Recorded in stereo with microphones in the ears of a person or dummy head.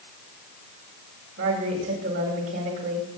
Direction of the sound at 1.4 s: 85° right.